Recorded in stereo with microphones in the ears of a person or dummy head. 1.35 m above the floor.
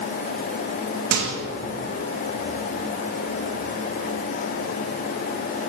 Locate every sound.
1.1 s a microwave: 65° right (ahead or behind), 1.7 m